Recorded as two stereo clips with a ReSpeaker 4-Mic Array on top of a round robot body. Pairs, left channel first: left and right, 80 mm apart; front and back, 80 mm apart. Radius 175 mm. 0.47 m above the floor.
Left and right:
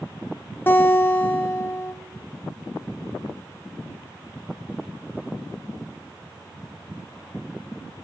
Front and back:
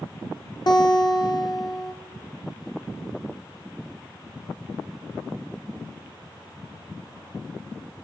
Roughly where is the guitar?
Ahead left.